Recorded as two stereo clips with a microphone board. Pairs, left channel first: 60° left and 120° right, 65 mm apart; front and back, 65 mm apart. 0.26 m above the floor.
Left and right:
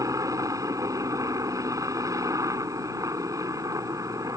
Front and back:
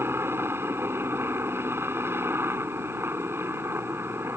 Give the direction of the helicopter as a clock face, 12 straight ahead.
4 o'clock.